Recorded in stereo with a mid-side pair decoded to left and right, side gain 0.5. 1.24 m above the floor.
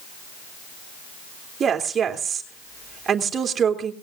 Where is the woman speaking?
45° right, 3.5 m.